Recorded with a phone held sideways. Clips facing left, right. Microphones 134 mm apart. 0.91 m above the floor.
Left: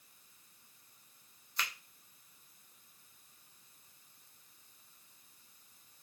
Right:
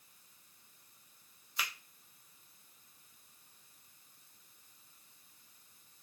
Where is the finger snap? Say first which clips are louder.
Even; 5° right (ahead or behind), 0.7 m.